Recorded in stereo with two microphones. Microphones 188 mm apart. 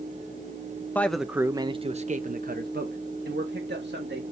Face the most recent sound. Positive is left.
turn(degrees=-70)  # may be behind; listen again after turning